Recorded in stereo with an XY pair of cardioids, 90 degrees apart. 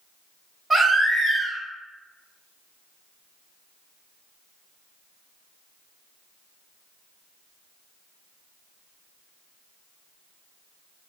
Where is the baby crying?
25° right, 1.4 m.